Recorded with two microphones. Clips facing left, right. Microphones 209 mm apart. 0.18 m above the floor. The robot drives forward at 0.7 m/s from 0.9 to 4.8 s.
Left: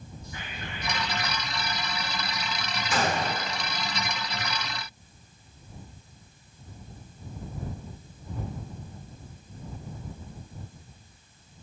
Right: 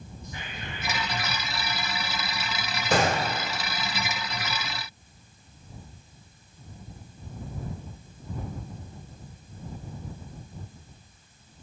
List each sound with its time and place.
0.2 s whispering: 30° right (ahead or behind), 1.9 m; by 1.5 s 35° right (ahead or behind), 1.6 m
2.9 s a gunshot: 70° right (ahead or behind), 2.5 m; by 3.4 s 75° right (ahead or behind), 2.5 m